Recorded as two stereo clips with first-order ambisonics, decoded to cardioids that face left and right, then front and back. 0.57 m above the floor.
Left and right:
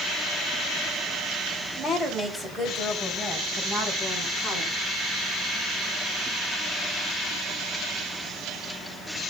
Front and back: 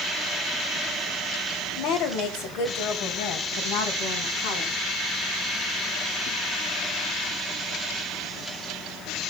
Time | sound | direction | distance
1.8 | a woman speaking | 5° right | 2.5 m